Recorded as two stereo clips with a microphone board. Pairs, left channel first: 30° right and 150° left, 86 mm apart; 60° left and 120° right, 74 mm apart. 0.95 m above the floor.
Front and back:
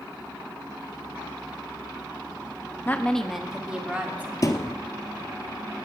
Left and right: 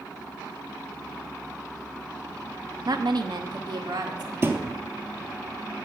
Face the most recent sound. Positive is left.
turn(degrees=-70)